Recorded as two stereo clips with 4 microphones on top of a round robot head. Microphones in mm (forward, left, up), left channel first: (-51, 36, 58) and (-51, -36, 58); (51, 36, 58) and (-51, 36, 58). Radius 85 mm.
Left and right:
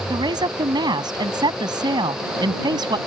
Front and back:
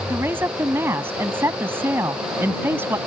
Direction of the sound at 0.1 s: 110° right.